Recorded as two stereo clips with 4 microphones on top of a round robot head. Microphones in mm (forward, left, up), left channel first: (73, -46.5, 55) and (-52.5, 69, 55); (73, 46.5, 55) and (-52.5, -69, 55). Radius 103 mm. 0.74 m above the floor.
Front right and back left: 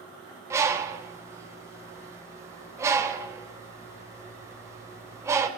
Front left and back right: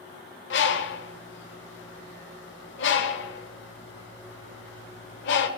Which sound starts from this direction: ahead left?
A bird, at 0.5 s.